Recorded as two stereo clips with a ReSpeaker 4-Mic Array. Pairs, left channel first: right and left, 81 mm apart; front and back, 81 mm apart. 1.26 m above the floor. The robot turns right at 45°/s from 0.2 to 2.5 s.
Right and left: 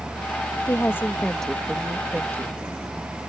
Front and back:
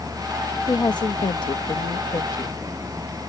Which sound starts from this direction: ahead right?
A woman speaking, at 0.7 s.